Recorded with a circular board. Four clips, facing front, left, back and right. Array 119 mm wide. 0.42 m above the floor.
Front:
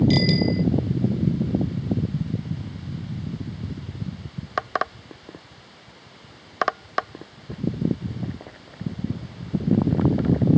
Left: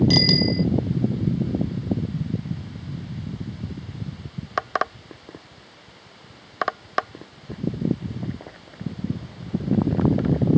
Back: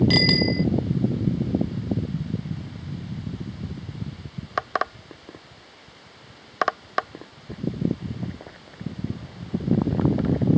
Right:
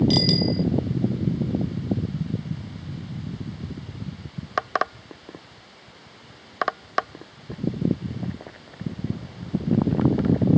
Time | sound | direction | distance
0.1 | a bicycle bell | 165° left | ?